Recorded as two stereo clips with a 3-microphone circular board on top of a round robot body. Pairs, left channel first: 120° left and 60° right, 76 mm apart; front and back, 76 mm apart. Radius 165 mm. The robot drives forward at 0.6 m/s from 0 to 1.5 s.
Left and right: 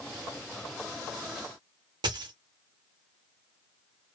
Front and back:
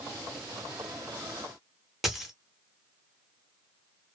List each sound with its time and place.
2.0 s a dropped coin: 90° right, 0.5 m